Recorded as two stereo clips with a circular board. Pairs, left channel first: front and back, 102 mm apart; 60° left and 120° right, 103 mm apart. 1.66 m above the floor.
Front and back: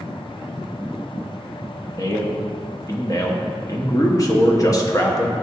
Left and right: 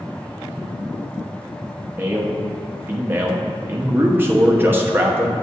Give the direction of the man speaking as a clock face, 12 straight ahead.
2 o'clock.